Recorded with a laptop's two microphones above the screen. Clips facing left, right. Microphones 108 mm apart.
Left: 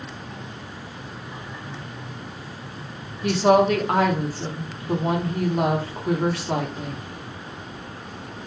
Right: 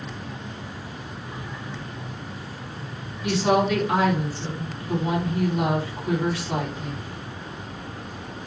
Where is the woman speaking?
50° left (ahead or behind), 1.0 m.